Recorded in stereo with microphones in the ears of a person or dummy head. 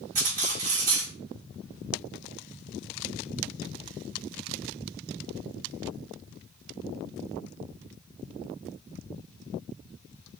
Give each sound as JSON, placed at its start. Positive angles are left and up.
{"t": 0.1, "sound": "cutlery clinking", "side_deg": -40, "distance_m": 2.5}